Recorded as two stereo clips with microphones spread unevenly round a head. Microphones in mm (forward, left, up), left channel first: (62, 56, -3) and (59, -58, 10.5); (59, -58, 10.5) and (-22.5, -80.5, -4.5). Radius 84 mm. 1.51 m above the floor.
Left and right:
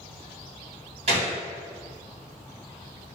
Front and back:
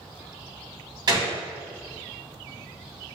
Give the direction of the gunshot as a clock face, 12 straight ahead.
4 o'clock.